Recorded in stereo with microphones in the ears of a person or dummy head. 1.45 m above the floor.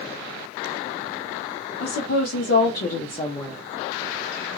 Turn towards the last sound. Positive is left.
turn(degrees=-5)  # may be behind; listen again after turning